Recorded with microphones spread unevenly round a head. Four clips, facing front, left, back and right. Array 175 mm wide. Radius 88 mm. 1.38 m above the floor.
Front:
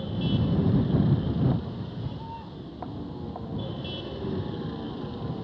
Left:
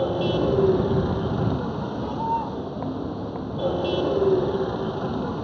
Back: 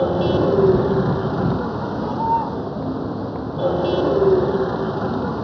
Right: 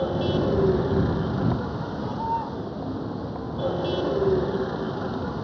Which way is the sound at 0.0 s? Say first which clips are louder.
Left 2 dB, back 12 dB; 175° left.